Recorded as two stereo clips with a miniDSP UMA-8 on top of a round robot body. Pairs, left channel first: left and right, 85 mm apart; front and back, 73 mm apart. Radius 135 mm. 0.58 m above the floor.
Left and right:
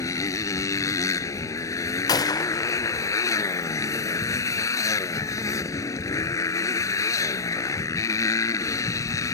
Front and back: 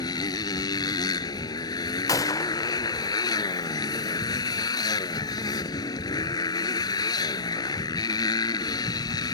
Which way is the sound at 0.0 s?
35° left.